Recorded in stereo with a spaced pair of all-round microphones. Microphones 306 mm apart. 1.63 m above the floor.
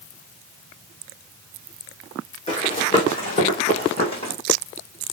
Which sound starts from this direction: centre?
Running footsteps, at 2.5 s.